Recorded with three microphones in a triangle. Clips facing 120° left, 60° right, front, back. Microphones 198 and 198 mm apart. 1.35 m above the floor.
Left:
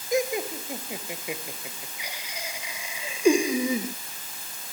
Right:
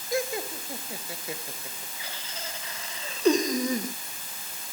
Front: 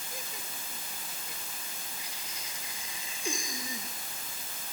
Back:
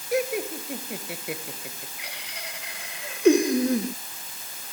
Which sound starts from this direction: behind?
Laughter, at 0.1 s.